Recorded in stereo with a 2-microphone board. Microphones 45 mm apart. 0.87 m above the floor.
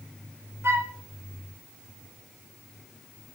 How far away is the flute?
About 3 m.